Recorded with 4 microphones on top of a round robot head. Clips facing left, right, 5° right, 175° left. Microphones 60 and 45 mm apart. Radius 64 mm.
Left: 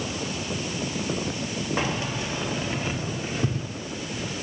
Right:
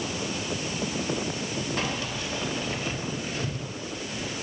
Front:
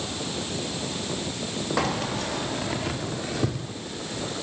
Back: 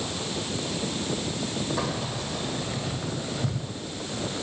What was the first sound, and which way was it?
Keys jangling, 15° left.